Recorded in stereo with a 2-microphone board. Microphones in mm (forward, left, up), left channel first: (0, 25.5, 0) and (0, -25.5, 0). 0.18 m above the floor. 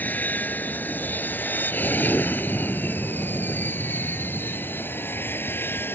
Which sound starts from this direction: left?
An aircraft, at 0.0 s.